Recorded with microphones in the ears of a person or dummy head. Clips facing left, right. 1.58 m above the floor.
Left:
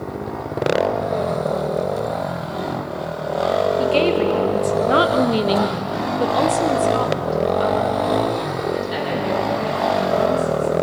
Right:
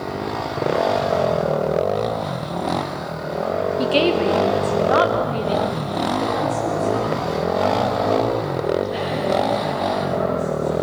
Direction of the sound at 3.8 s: 20° right (ahead or behind).